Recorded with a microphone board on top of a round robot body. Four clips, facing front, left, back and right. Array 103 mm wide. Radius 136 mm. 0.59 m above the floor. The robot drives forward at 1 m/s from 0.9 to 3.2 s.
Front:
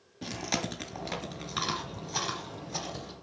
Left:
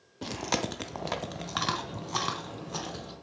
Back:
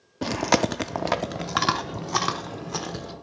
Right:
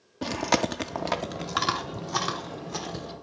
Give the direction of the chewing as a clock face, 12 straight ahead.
5 o'clock.